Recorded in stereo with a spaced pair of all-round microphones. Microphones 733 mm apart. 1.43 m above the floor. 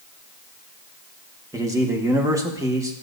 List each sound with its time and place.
1.5 s a man speaking: 5° right (ahead or behind), 1.3 m